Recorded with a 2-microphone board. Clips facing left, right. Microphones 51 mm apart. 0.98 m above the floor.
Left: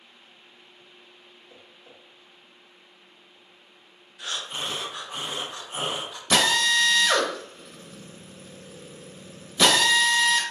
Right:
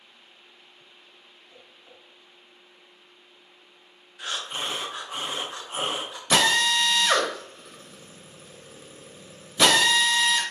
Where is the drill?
10° right (ahead or behind), 0.8 m.